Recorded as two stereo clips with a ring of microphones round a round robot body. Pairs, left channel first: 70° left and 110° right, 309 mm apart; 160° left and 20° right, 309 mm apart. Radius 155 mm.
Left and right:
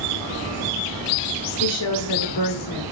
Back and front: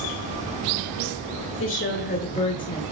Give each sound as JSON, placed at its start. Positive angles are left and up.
{"t": 1.6, "sound": "a woman speaking", "azimuth_deg": 110, "distance_m": 1.9}